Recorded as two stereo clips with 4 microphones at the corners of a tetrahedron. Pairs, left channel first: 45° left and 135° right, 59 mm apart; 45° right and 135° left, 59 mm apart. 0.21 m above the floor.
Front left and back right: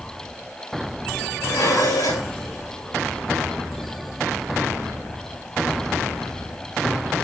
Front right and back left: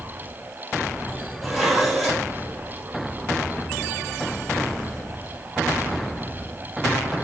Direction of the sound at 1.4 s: 45° left.